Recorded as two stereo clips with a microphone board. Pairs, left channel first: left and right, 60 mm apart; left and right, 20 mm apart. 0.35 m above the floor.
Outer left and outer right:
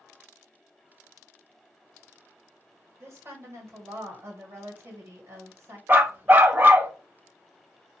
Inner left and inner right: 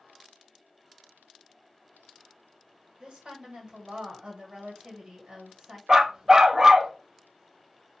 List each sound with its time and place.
3.0 s a woman speaking: 45° right (ahead or behind), 1.7 m
5.9 s a dog barking: 30° right (ahead or behind), 0.6 m